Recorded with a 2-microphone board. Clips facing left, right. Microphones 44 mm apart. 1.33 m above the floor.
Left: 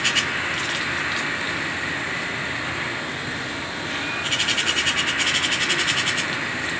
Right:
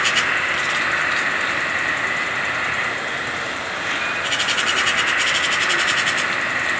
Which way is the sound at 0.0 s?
70° right (ahead or behind).